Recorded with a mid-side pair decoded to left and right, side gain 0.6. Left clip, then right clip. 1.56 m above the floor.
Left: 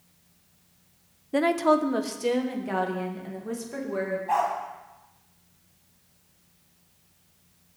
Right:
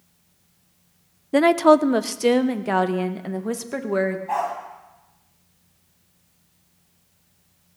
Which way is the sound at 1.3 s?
35° right.